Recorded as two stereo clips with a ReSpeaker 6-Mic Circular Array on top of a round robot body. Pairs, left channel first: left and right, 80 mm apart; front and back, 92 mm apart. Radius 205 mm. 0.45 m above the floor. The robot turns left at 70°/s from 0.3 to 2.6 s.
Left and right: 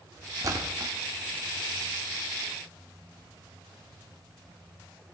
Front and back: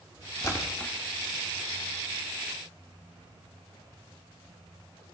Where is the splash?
50° right, 2 m; by 0.9 s 85° right, 2 m.